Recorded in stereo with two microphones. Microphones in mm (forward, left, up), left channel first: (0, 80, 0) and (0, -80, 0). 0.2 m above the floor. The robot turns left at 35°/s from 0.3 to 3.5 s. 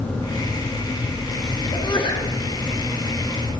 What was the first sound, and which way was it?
A sneeze, 25° left (ahead or behind).